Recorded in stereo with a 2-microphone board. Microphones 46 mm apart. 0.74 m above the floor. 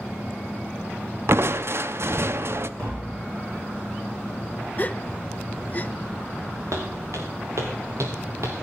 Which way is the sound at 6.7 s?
80° right.